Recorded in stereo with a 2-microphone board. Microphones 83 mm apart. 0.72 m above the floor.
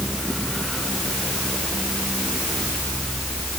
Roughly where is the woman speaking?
No woman speaking in this recording.